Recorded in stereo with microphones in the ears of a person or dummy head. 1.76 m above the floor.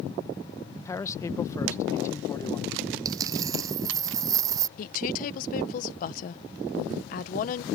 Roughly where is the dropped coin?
Right.